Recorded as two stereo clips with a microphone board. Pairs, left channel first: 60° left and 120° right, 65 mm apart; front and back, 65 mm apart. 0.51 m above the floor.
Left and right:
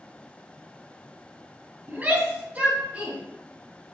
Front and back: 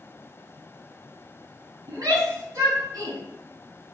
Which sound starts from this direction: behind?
A shout, at 1.9 s.